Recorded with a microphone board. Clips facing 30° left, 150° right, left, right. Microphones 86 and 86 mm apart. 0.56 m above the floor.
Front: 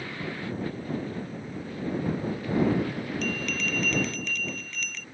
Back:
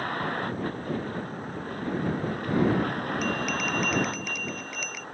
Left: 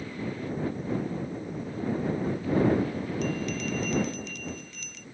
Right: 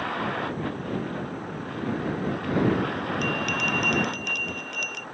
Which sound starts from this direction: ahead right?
A bell, at 3.2 s.